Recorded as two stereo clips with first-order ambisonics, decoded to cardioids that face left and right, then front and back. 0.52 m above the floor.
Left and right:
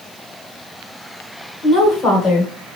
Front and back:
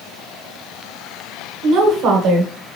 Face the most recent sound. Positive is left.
turn(degrees=150)